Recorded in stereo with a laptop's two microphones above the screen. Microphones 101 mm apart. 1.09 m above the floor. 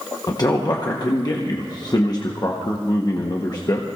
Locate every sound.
0.3 s a man speaking: 40° left (ahead or behind), 1.0 m